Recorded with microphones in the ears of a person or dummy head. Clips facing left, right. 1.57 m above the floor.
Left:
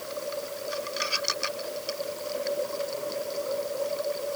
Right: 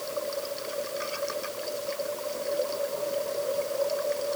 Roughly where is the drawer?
I don't hear a drawer.